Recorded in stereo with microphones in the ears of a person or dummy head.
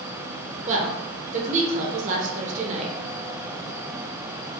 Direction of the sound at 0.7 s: 35° right (ahead or behind).